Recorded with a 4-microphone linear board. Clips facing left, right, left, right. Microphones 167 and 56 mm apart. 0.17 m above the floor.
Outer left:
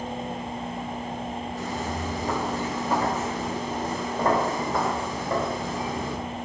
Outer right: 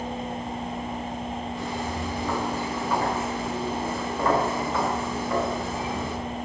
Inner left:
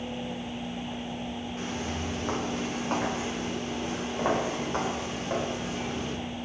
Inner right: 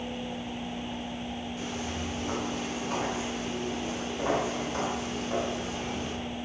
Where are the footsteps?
40° left (ahead or behind), 4 m.